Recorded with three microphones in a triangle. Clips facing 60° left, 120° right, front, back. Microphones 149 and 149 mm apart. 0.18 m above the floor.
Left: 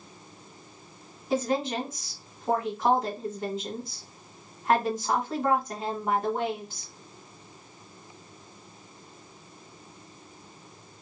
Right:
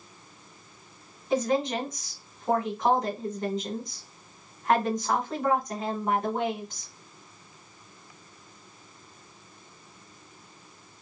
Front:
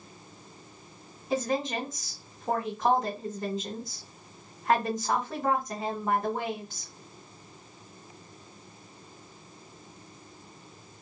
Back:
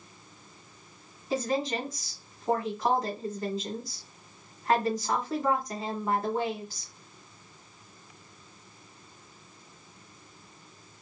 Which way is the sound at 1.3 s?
20° right.